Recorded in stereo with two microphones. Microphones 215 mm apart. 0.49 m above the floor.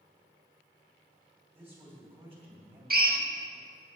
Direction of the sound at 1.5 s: 10° right (ahead or behind).